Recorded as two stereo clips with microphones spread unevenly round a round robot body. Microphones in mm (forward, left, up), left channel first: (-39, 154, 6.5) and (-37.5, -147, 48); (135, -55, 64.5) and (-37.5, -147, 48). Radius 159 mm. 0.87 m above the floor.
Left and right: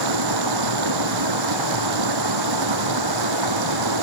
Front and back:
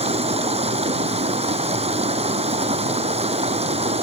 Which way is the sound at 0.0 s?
95° right.